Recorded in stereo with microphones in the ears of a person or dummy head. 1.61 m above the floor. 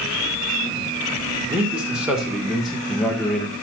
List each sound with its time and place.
1.5 s a man speaking: 10° right (ahead or behind), 2.5 m; by 3.5 s 5° left (ahead or behind), 1.8 m